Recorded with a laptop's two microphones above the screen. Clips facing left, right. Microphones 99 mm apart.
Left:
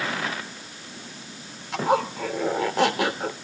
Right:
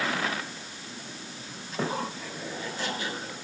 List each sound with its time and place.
1.7 s a zipper: 80° left, 3 m